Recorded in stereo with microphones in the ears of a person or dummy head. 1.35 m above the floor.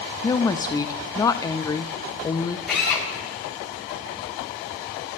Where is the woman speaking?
15° left (ahead or behind), 0.6 m.